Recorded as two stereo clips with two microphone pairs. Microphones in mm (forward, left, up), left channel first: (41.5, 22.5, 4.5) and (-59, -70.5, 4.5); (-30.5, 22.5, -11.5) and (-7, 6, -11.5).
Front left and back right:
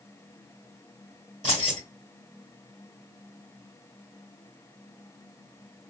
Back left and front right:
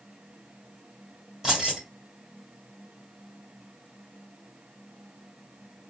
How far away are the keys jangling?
About 1.6 m.